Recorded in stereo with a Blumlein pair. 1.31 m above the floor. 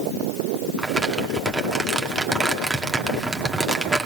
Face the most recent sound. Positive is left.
turn(degrees=-10)